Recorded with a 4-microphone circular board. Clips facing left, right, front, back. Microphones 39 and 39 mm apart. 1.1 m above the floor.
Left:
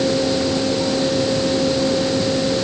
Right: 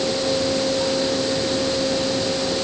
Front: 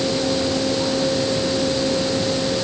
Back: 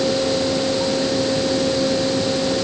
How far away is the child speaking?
I don't hear a child speaking.